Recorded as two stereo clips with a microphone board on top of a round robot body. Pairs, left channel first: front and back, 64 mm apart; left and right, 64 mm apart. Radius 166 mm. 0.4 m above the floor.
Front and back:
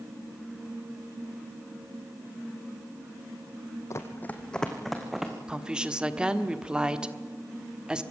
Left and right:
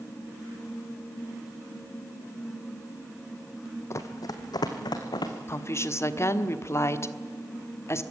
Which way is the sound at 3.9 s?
45° left.